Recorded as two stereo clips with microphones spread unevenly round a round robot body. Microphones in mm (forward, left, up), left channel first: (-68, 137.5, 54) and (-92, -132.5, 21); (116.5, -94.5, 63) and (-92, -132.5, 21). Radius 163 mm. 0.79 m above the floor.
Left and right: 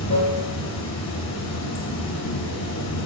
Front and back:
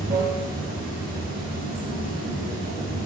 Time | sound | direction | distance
0.0 | running water | 115° left | 3 m